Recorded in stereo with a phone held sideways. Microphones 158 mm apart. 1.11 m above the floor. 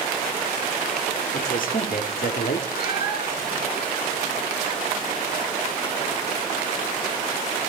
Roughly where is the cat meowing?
Left.